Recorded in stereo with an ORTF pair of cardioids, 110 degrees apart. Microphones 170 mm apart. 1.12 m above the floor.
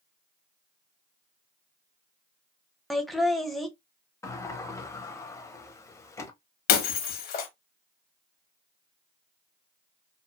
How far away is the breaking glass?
About 0.8 m.